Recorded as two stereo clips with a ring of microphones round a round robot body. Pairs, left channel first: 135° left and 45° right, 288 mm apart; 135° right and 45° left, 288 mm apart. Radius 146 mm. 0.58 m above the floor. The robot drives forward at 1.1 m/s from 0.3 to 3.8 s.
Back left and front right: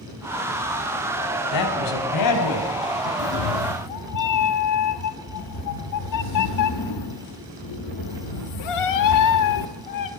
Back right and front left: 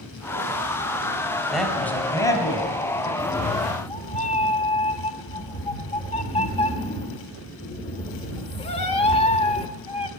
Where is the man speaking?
135° left, 2.5 m; by 3.1 s 155° left, 4 m.